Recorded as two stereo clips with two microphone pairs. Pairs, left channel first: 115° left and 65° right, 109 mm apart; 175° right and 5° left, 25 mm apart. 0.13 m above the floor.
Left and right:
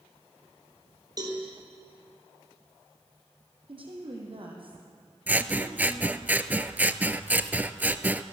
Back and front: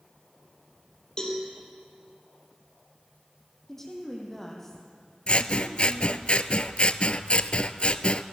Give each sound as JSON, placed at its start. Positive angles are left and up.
{"t": 1.2, "sound": "a cowbell", "azimuth_deg": -115, "distance_m": 4.0}
{"t": 3.7, "sound": "a woman speaking", "azimuth_deg": -100, "distance_m": 4.0}
{"t": 5.3, "sound": "scissors", "azimuth_deg": -140, "distance_m": 0.7}